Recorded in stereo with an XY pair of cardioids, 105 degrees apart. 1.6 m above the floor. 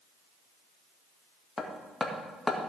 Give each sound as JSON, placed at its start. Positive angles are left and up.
{"t": 1.6, "sound": "hammering", "azimuth_deg": 20, "distance_m": 1.9}